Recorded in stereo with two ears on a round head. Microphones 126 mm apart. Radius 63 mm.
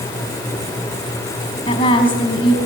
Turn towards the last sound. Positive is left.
turn(degrees=40)  # may be behind; listen again after turning